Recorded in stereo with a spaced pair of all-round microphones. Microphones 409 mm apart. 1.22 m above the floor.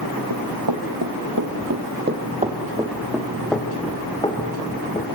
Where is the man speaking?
I don't hear a man speaking.